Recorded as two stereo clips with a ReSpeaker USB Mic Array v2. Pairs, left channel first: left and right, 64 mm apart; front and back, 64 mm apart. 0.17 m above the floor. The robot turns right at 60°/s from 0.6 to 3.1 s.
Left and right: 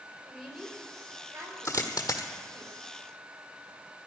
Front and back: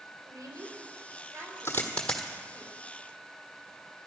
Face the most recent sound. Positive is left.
turn(degrees=135)